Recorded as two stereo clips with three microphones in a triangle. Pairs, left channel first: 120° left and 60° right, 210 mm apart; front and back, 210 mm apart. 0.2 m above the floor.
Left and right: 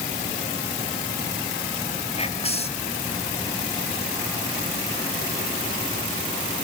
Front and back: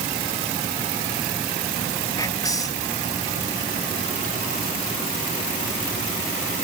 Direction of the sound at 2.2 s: 70° left.